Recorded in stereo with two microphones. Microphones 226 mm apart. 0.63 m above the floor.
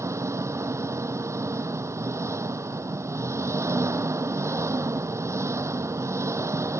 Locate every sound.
0.0 s an engine running: 10° right (ahead or behind)